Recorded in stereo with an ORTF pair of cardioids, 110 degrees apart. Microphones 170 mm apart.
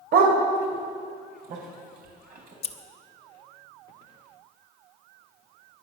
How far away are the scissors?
About 1.1 m.